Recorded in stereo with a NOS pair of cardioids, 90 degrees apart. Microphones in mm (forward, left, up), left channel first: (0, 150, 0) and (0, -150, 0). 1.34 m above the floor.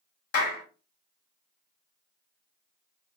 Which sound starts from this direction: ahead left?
A clap, at 0.3 s.